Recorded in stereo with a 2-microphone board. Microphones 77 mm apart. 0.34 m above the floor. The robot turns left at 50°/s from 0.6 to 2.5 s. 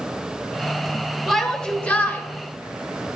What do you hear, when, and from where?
1.3 s a shout: straight behind, 1.0 m; by 2.2 s 135° left, 1.0 m